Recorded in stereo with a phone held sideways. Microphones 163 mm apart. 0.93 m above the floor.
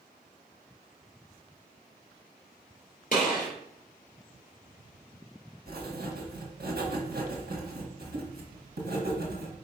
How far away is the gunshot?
About 2.5 m.